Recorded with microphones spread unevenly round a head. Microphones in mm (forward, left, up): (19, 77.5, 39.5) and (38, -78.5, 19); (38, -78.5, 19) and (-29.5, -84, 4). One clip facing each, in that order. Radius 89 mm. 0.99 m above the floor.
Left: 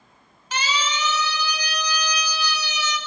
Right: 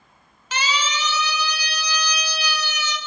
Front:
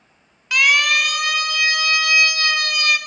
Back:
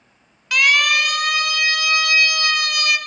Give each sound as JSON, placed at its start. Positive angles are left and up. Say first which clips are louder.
{"t": 0.5, "sound": "a siren", "louder": "right 1 dB, even", "azimuth_deg": -80, "distance_m": 5.0}